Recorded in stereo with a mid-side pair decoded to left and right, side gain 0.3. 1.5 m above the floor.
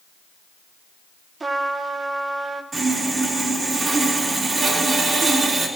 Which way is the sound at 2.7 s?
60° right.